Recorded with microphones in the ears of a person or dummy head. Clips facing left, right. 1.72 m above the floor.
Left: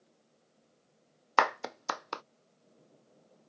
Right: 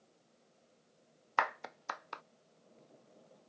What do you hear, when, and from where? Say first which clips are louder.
1.4 s a clap: left 7 dB; 55° left (ahead or behind)